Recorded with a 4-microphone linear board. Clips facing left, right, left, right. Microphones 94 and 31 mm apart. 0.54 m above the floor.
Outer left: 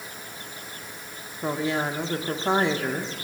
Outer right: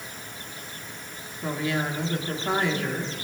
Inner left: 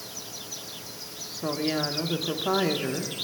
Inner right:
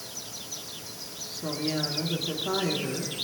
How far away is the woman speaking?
About 1.0 m.